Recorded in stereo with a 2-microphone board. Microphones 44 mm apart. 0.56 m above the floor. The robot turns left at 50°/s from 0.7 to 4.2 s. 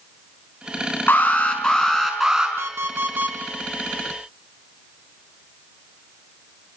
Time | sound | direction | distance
1.1 | an alarm | 50° left | 5.5 m
2.6 | an alarm clock | 100° right | 4.5 m